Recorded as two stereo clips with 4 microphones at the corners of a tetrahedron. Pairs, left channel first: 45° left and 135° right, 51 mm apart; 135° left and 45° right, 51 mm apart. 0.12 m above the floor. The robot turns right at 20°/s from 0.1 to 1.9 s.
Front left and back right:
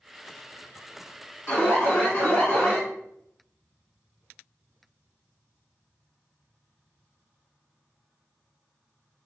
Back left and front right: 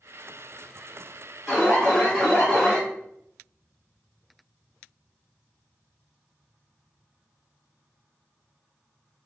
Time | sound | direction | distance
1.5 | an alarm | 35° left | 1.7 m